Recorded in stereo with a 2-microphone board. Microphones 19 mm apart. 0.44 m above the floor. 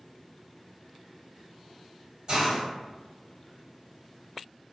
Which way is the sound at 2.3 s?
45° right (ahead or behind).